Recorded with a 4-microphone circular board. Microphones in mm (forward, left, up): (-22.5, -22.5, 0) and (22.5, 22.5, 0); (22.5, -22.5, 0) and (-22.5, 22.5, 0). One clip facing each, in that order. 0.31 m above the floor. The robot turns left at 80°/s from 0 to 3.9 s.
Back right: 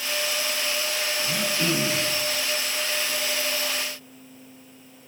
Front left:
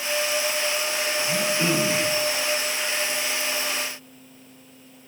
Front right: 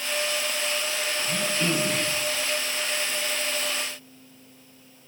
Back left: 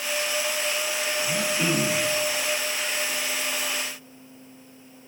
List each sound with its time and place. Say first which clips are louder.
1.2 s throat clearing: front left 3 dB, back left 1 dB; straight behind, 7 m; by 2.1 s 105° left, 7 m